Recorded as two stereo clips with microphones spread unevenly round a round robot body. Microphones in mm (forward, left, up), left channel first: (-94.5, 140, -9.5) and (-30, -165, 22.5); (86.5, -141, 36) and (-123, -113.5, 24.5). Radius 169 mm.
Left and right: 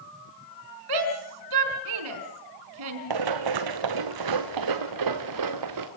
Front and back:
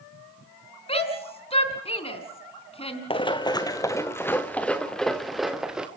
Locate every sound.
0.9 s a shout: 70° right, 4.5 m
3.1 s running footsteps: 75° right, 1.8 m; by 5.9 s 100° right, 2.5 m